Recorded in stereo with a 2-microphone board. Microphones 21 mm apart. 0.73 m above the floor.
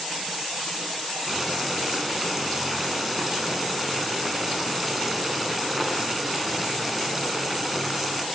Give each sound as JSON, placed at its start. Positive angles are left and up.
{"t": 1.3, "sound": "boiling", "side_deg": -5, "distance_m": 6.0}